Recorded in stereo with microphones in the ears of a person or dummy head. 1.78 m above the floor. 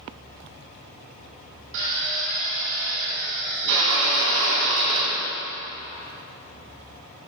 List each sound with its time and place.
1.7 s a drill: 65° right (ahead or behind), 3 m